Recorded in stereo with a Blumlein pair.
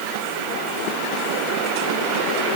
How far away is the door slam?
No door slam in this recording.